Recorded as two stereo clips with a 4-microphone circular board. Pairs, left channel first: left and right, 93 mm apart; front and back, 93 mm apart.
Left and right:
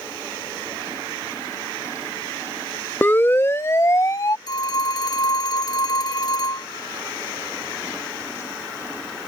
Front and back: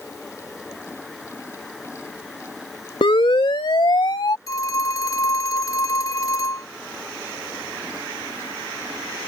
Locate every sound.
3.0 s a siren: 20° left; by 4.4 s 40° left
4.5 s a phone ringing: 50° left